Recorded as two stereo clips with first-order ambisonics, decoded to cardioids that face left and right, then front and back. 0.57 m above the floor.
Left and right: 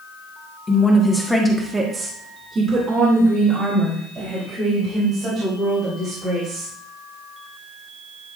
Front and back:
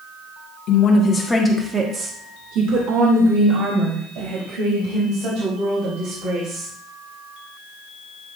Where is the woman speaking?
25° left, 1.4 m; by 6.7 s 155° right, 6.5 m.